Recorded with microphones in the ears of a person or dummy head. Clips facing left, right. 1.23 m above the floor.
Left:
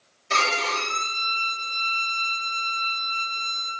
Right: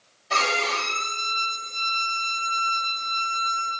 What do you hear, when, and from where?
0.3 s a violin: 35° left (ahead or behind), 3 m